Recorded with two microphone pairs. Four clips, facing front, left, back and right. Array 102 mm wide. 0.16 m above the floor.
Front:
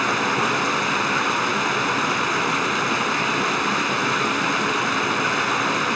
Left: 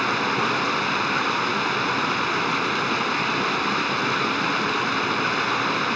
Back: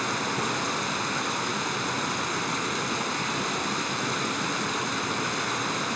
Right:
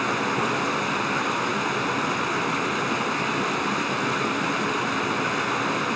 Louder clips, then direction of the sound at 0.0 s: Left 1 dB, front 7 dB; 30° left.